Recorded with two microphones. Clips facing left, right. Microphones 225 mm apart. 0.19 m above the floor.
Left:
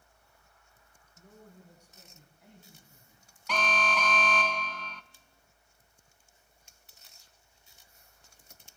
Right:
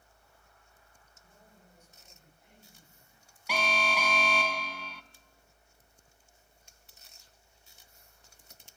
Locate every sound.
1.2 s a man speaking: 70° left (ahead or behind), 9 m; by 3.3 s 65° left (ahead or behind), 11.5 m
3.5 s an alarm: 10° right (ahead or behind), 0.9 m